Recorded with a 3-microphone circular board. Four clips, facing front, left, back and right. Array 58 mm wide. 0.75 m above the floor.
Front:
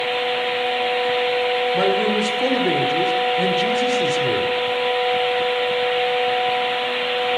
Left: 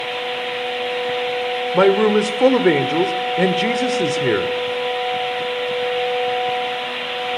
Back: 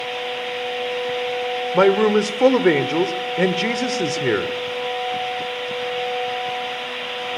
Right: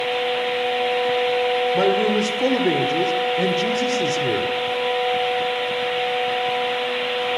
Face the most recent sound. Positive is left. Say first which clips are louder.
# left 9 dB, back 8 dB
turn(degrees=140)